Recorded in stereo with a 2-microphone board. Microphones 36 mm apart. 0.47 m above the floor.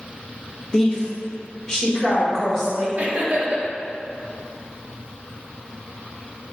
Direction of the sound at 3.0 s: 40° right (ahead or behind).